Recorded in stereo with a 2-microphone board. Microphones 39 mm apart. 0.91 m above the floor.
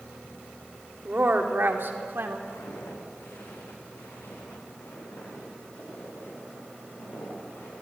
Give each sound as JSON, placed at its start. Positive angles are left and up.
{"t": 1.1, "sound": "a woman speaking", "side_deg": -45, "distance_m": 2.0}
{"t": 2.5, "sound": "footsteps", "side_deg": 80, "distance_m": 4.5}